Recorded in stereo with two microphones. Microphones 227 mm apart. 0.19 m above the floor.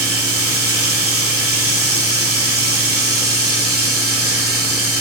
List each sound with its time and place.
0.0 s running water: 80° right, 1.5 m